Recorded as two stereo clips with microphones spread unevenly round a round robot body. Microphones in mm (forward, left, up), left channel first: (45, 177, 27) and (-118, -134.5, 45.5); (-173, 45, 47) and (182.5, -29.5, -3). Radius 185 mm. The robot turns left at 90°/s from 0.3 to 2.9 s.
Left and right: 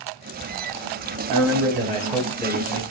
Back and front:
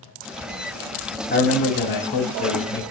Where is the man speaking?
125° right, 1.3 m; by 2.8 s 100° left, 1.3 m.